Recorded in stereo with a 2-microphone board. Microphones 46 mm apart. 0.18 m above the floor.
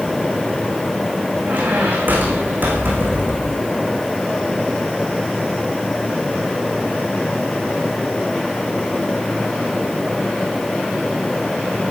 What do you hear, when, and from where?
1.4 s a squeak: 45° right (ahead or behind), 5 m